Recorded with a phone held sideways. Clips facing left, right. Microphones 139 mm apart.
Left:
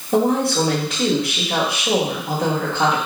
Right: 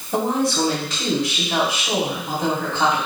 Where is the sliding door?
No sliding door in this recording.